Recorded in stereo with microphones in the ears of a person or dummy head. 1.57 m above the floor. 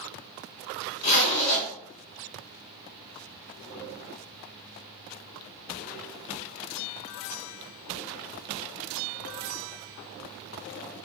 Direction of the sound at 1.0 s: 65° left (ahead or behind).